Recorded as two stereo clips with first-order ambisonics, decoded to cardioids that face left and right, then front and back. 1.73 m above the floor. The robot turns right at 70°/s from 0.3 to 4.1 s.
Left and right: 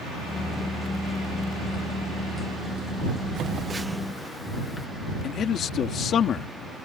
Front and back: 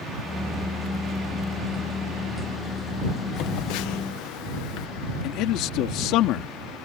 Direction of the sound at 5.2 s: 35° left.